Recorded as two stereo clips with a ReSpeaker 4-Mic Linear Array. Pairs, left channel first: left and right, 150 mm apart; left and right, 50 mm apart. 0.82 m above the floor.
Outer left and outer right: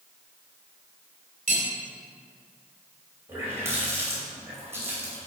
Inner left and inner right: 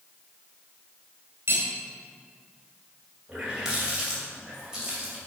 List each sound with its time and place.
1.5 s cutlery clinking: 60° right (ahead or behind), 2 m
3.3 s a running tap: 15° right (ahead or behind), 2.5 m